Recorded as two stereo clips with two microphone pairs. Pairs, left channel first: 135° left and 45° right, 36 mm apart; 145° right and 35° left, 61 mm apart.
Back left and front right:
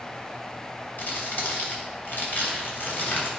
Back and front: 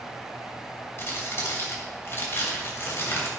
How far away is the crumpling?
About 3 m.